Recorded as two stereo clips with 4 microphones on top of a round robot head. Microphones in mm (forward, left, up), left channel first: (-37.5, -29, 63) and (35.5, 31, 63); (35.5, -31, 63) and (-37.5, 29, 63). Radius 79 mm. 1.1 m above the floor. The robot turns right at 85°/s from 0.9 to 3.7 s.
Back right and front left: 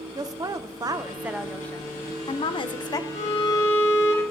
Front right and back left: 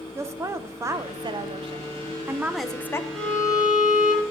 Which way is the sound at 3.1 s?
125° right.